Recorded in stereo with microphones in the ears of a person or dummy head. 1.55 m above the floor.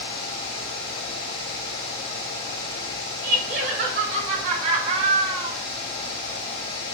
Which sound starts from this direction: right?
Laughter, at 3.2 s.